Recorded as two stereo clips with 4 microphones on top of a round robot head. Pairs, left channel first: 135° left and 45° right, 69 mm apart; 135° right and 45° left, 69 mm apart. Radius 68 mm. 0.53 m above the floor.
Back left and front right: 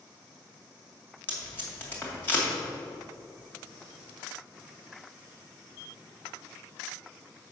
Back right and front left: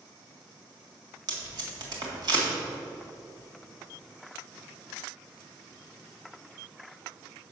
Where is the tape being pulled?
70° left, 2 m.